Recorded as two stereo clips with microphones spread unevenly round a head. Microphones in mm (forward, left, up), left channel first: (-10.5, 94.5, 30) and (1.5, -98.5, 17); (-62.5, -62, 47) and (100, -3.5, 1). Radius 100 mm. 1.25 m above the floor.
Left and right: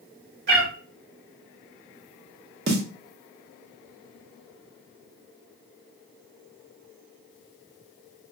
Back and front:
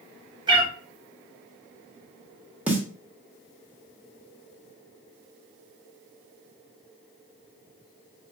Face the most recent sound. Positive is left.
turn(degrees=-75)